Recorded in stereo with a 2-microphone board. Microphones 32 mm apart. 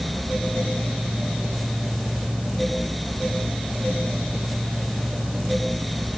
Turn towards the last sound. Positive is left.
No sound to turn to.